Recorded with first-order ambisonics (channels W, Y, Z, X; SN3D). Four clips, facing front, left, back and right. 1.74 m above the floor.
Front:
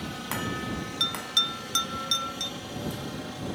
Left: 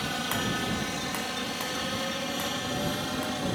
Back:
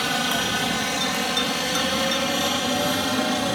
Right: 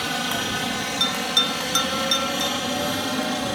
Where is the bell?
75° right.